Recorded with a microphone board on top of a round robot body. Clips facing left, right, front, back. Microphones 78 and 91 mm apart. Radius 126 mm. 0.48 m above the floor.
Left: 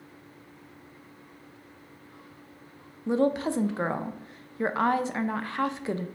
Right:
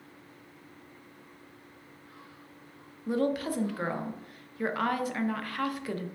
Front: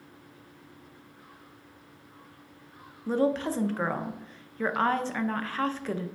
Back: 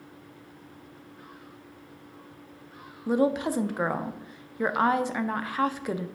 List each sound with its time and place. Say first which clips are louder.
3.1 s a woman speaking: left 4 dB, back 2 dB; 115° left, 0.7 m